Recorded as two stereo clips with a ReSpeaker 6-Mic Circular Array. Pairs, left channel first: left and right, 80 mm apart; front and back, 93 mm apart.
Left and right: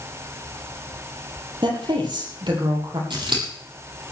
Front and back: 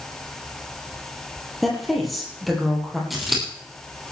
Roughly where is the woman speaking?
Right.